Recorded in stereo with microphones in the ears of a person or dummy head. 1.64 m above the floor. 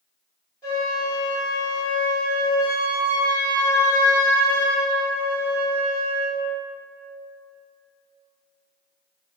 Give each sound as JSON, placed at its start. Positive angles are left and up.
{"t": 0.6, "sound": "a flute", "side_deg": 15, "distance_m": 1.5}